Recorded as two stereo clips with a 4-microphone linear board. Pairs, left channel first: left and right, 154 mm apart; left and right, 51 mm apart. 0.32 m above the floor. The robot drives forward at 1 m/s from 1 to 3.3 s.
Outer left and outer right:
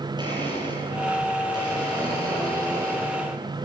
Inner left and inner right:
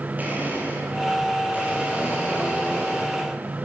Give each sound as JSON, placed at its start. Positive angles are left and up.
{"t": 0.2, "sound": "a blender", "side_deg": -30, "distance_m": 9.0}